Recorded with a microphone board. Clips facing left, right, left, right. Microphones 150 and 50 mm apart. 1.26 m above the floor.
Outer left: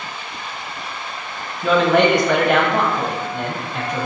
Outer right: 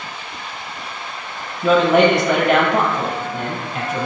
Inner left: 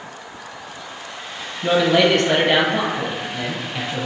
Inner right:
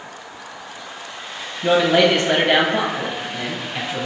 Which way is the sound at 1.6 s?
Centre (ahead or behind).